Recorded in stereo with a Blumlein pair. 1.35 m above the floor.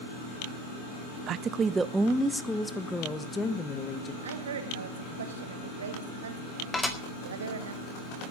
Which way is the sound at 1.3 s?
30° right.